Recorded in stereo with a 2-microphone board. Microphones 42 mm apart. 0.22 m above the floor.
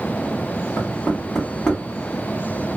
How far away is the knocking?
About 1.3 m.